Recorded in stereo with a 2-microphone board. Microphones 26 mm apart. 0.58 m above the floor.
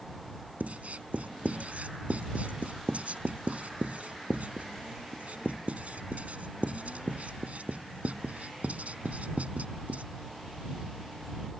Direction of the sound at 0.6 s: 70° right (ahead or behind).